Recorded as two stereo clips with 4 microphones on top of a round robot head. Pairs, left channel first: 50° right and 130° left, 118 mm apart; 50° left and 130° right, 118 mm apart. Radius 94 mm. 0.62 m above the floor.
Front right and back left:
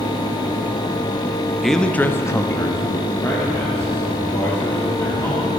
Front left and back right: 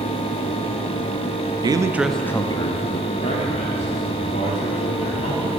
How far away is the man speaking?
About 0.8 m.